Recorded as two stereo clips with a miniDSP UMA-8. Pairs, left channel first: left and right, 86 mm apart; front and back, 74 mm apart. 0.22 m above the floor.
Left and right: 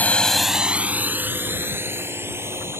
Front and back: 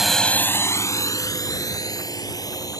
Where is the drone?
100° left; by 2.8 s 30° right.